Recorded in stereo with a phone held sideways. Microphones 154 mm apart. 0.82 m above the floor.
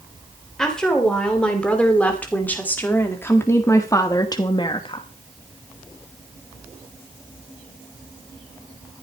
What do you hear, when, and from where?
0.6 s a woman speaking: 5° left (ahead or behind), 3 m; by 5.0 s 40° left (ahead or behind), 1.0 m